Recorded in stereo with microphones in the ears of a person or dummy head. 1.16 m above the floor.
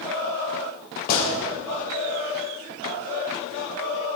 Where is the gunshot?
50° left (ahead or behind), 3 m.